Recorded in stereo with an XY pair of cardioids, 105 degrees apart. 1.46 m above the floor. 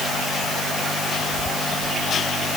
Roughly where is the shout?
I don't hear a shout.